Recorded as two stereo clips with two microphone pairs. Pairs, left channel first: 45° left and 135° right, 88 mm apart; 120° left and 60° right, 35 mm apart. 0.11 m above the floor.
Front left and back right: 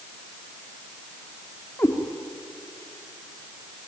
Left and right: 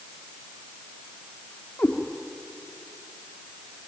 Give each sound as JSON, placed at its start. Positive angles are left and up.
{"t": 1.8, "sound": "a cat meowing", "azimuth_deg": 100, "distance_m": 4.0}